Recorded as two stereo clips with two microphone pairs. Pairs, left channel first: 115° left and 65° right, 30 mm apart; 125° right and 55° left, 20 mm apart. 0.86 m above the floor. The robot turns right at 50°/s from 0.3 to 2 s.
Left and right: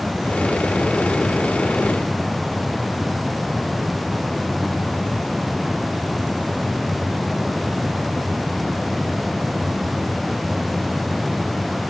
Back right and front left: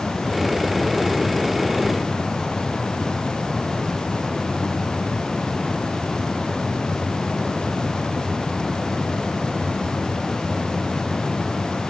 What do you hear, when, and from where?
Only background noise.